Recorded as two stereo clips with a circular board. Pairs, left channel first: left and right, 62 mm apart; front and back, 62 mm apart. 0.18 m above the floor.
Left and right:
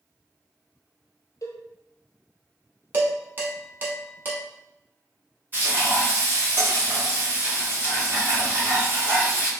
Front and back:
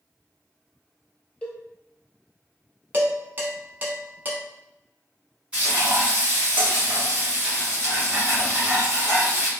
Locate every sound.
1.4 s a cowbell: 70° left, 0.8 m
2.9 s dishes clattering: 135° right, 1.0 m
5.5 s frying: 125° right, 1.8 m